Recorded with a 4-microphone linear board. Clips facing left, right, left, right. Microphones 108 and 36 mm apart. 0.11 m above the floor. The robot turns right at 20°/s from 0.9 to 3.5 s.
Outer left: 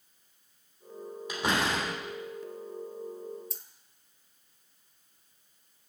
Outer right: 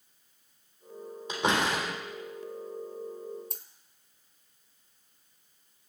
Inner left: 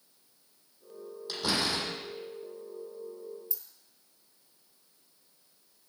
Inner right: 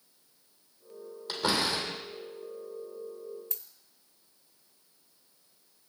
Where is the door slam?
25° right (ahead or behind), 3 m; by 1.9 s 10° right (ahead or behind), 3 m.